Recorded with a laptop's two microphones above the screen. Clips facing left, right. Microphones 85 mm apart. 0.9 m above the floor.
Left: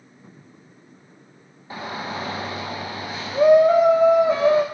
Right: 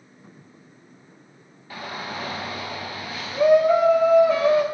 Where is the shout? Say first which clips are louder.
Left 3 dB; 25° left (ahead or behind), 0.5 m.